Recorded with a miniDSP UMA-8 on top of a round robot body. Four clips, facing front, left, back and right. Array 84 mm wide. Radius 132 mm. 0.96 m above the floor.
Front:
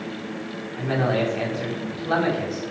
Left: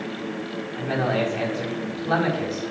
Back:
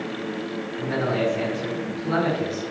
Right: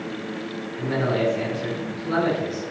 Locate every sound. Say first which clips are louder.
0.8 s a man speaking: even, front 2 dB; 40° left, 5.5 m